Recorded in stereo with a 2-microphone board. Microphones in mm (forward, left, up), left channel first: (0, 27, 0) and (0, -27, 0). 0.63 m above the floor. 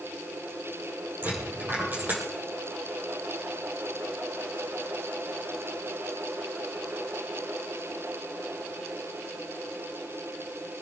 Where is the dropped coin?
35° right (ahead or behind), 5.5 m.